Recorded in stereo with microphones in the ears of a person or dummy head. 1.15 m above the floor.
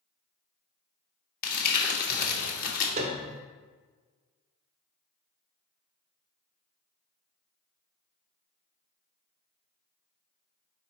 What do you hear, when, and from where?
1.4 s crumpling: 55° left (ahead or behind), 1.3 m
3.0 s a piano: 20° right (ahead or behind), 0.7 m